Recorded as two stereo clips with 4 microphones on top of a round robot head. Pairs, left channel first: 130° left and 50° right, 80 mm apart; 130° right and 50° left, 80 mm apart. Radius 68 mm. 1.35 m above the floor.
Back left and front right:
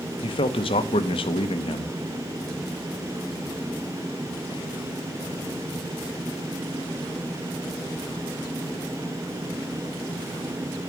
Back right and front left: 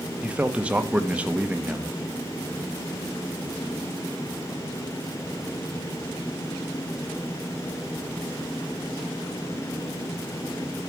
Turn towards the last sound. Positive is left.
turn(degrees=130)